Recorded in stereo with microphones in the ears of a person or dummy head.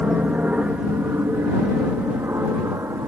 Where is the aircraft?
5° right (ahead or behind); by 3.1 s 15° right (ahead or behind).